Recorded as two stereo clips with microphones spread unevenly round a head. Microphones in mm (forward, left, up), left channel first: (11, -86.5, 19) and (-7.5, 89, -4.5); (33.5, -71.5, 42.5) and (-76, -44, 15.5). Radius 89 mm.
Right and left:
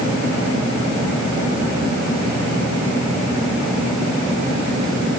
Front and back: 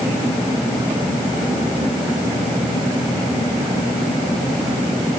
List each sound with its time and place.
Only background noise.